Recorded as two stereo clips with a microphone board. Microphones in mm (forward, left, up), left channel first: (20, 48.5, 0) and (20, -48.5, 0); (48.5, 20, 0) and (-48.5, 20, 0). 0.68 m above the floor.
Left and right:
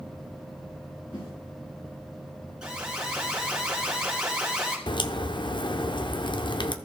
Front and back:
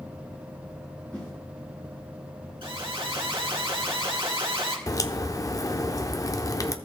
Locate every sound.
1.1 s a whoosh: 75° left, 5.5 m
2.6 s an alarm: 170° right, 2.5 m
4.9 s a crack: 55° left, 0.6 m